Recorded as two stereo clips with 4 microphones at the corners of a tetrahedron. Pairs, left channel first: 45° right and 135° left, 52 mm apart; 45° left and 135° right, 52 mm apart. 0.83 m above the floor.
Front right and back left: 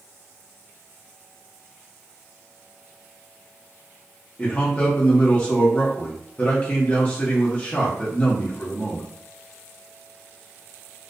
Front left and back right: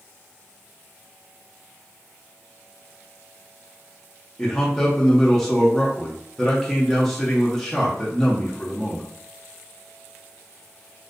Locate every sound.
4.4 s a man speaking: 25° right, 0.5 m